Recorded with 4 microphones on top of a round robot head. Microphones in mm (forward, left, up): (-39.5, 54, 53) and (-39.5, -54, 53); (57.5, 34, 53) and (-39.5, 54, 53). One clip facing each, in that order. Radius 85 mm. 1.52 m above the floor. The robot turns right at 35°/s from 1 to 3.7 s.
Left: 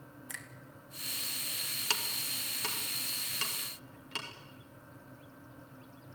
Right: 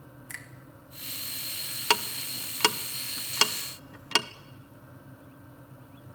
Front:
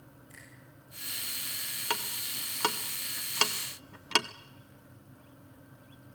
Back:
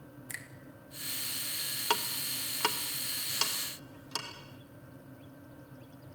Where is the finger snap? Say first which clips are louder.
Right 2 dB, back 8 dB; 165° left, 2 m.